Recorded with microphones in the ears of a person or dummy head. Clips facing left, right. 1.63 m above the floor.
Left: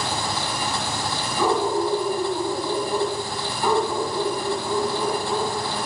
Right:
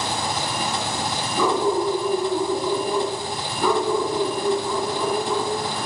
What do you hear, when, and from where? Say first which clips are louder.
0.0 s an engine running: right 1 dB; 15° right (ahead or behind), 1.8 m
1.4 s a dog barking: right 1 dB; 60° right (ahead or behind), 3 m